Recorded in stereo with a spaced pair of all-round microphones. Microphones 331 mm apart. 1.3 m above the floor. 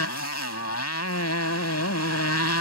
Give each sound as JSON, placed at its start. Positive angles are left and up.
{"t": 0.0, "sound": "a motorcycle", "side_deg": 50}